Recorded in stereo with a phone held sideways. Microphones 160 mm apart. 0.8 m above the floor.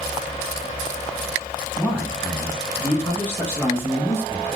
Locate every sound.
1.8 s a man speaking: 5° left (ahead or behind), 1.7 m; by 4.6 s 15° left (ahead or behind), 1.0 m